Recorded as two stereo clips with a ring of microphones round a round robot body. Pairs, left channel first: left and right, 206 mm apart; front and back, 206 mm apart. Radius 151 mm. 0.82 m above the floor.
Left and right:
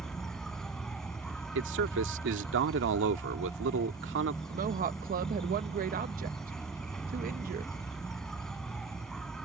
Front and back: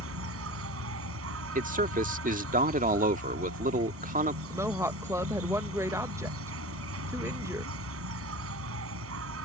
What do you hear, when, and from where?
0.0 s an insect: straight behind
1.6 s a man speaking: 130° right
4.5 s a woman speaking: 110° right